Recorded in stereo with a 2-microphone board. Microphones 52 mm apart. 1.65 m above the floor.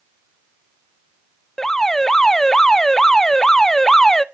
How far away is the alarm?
About 0.6 m.